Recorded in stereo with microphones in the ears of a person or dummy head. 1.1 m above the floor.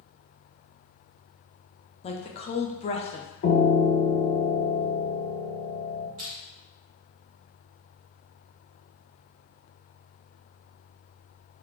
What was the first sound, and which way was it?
A woman speaking, 30° left (ahead or behind).